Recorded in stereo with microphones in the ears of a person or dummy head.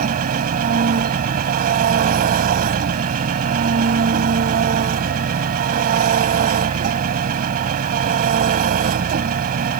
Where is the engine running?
50° right (ahead or behind).